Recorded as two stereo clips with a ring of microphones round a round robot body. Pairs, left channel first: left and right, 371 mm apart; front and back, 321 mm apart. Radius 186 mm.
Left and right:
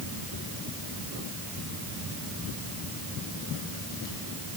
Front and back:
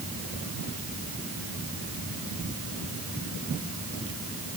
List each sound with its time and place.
Only background noise.